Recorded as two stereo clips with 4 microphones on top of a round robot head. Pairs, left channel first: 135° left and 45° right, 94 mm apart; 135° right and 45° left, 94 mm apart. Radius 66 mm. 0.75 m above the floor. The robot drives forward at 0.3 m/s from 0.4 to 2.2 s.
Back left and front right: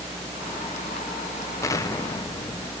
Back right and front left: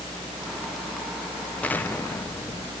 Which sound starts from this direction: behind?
An explosion, at 1.6 s.